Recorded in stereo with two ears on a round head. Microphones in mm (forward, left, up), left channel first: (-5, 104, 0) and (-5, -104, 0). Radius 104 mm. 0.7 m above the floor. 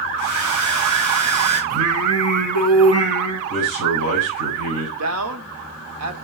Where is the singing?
80° right, 2.5 m.